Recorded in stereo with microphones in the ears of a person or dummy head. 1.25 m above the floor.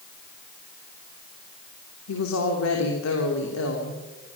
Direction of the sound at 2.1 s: 90° left.